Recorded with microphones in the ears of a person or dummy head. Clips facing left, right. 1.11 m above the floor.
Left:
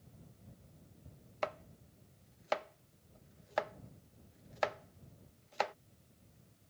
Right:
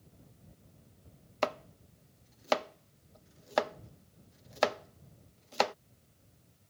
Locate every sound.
1.4 s chopping: 65° right (ahead or behind)